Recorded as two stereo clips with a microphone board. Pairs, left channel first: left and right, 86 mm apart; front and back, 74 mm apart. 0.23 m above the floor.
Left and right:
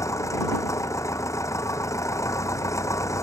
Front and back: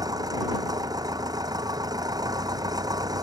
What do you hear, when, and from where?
0.0 s an engine running: 145° left